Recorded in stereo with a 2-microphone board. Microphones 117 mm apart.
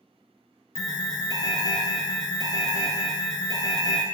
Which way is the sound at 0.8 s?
30° left (ahead or behind).